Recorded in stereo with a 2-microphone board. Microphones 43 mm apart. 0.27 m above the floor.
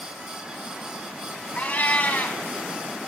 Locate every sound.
1.6 s a cat meowing: 35° left (ahead or behind), 0.8 m